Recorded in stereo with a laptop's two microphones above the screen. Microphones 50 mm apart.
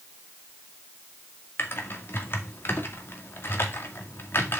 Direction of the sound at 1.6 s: 50° left (ahead or behind).